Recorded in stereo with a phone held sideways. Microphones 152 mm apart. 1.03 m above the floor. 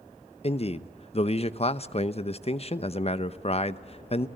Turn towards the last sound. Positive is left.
turn(degrees=40)  # may be behind; listen again after turning